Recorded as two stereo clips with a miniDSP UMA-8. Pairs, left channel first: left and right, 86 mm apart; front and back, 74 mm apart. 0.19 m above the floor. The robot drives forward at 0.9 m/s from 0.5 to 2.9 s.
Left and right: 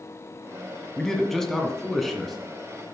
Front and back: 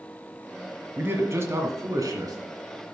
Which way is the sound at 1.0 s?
170° left.